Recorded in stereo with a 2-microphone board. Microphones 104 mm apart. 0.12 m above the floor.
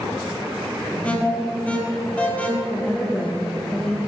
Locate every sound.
1.0 s an alarm: 15° left (ahead or behind), 5 m
2.7 s a woman speaking: 10° left (ahead or behind), 5.5 m